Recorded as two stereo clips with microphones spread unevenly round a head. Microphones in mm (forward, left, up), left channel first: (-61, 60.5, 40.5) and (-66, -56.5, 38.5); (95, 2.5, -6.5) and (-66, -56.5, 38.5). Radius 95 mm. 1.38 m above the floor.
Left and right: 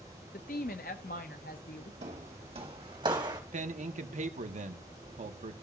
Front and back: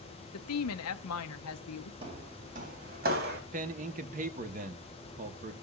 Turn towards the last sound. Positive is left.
turn(degrees=-110)